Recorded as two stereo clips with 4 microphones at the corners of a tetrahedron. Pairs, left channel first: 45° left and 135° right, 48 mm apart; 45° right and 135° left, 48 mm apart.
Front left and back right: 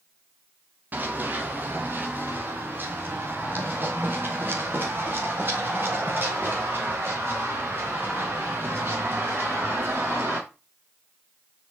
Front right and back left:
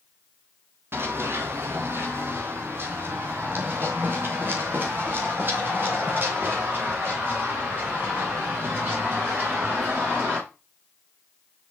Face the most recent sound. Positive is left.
turn(degrees=-175)